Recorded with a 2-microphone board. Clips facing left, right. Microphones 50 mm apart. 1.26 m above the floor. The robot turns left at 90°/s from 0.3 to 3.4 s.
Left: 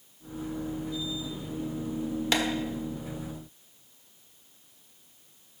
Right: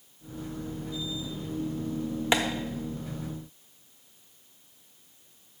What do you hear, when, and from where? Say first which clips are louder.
2.3 s tapping: right 2 dB; 25° right (ahead or behind), 1.0 m; by 2.4 s 30° right (ahead or behind), 1.0 m